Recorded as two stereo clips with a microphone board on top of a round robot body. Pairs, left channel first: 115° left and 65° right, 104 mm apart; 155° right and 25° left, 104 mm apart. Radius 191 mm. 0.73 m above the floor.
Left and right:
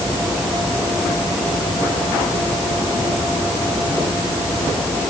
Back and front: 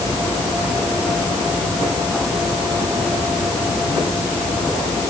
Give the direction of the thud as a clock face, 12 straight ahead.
No thud in this recording.